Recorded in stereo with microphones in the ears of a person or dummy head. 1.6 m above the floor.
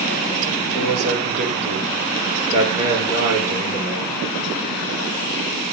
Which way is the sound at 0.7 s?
45° right (ahead or behind).